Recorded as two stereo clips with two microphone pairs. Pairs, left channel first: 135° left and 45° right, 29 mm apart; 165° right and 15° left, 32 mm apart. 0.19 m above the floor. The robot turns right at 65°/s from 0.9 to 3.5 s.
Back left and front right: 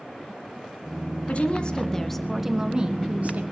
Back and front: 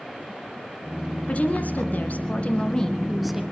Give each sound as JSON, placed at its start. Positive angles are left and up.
{"t": 1.3, "sound": "a woman speaking", "azimuth_deg": 160, "distance_m": 1.8}